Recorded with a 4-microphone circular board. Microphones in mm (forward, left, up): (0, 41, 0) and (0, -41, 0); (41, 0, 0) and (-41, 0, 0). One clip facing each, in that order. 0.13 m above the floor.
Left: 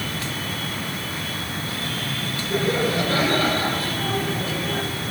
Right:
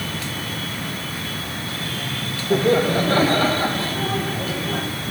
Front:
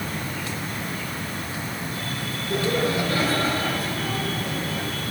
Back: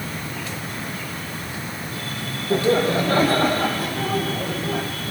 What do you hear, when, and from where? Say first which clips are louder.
2.5 s laughter: right 5 dB, back 5 dB; 125° right, 4.5 m; by 4.8 s 165° right, 6 m